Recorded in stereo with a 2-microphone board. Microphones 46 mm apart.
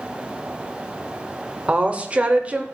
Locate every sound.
1.7 s a woman speaking: 25° right (ahead or behind), 0.8 m